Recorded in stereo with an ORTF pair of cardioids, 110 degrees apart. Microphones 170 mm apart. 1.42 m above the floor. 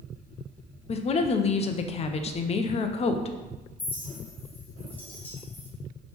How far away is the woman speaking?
About 0.6 m.